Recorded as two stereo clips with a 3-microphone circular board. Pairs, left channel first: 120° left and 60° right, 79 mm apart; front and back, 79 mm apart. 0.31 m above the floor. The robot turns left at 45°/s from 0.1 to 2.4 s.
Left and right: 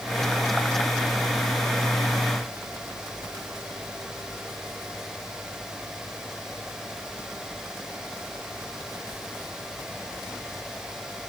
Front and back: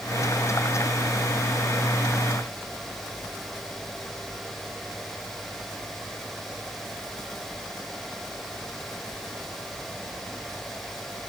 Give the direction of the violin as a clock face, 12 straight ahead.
No violin in this recording.